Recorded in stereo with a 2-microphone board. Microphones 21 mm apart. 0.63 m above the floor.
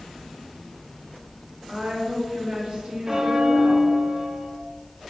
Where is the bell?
25° right (ahead or behind), 0.5 m.